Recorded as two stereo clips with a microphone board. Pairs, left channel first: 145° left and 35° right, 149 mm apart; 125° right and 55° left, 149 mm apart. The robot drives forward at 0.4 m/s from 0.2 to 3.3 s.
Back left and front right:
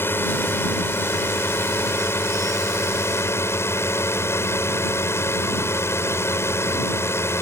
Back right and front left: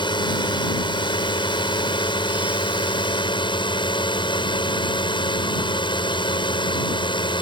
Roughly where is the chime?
No chime in this recording.